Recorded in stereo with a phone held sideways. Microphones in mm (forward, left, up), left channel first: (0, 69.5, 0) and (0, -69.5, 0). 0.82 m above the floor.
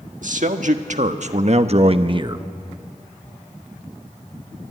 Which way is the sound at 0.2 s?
65° right (ahead or behind).